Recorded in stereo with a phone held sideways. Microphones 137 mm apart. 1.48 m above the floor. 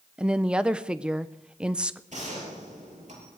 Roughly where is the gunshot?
Right.